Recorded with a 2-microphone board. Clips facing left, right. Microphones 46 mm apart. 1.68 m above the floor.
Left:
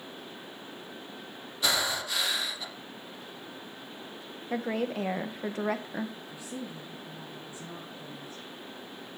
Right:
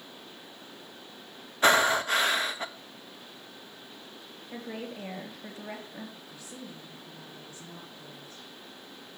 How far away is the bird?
I don't hear a bird.